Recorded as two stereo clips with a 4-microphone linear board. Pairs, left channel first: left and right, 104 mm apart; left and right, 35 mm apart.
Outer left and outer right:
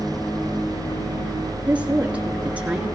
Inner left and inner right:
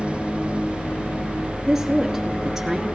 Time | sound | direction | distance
1.7 | a woman speaking | 15° right (ahead or behind) | 2.5 m